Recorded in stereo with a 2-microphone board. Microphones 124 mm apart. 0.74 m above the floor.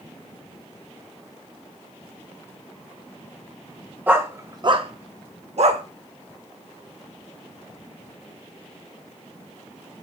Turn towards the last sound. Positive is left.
turn(degrees=-60)  # may be behind; listen again after turning